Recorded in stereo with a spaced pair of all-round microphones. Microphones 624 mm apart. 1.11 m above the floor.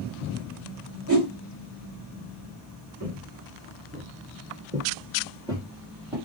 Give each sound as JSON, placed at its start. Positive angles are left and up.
{"t": 1.1, "sound": "a whoosh", "side_deg": -25, "distance_m": 0.9}
{"t": 3.0, "sound": "footsteps", "side_deg": -10, "distance_m": 1.3}